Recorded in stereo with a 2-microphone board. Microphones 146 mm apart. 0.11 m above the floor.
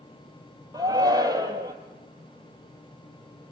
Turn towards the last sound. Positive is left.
turn(degrees=-25)  # may be behind; listen again after turning